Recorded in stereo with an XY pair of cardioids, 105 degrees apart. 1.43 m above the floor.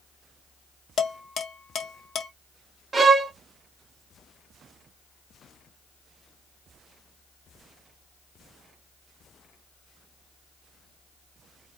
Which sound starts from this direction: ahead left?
Dishes clattering, at 1.0 s.